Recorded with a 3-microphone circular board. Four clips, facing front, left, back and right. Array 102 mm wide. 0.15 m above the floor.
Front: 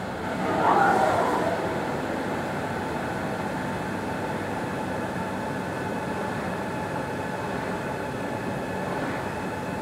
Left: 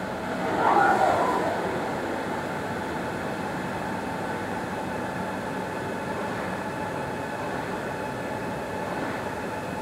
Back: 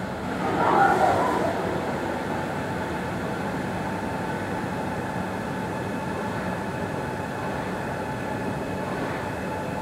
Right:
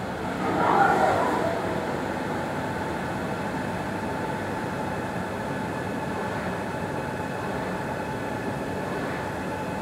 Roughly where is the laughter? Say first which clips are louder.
Even, back 1 dB; behind right.